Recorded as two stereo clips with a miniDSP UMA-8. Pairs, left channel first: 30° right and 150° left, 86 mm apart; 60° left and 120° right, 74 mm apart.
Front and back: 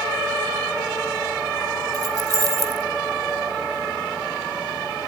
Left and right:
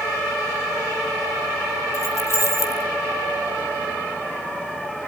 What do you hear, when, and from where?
1.9 s keys jangling: 110° left, 1.6 m